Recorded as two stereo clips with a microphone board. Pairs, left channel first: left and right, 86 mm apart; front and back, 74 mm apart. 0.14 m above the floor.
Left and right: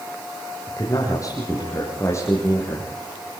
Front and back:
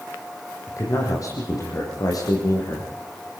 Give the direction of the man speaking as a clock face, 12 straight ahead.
10 o'clock.